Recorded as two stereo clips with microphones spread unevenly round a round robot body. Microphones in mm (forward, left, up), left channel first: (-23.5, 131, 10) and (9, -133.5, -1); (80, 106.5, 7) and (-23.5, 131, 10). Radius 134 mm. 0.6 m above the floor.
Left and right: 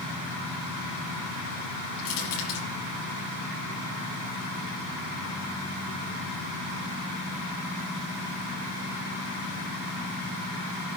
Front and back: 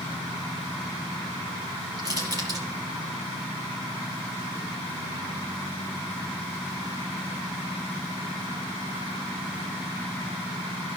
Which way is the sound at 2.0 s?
110° left.